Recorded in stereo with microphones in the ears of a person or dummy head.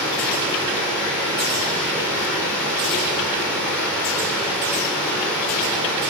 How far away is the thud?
No thud in this recording.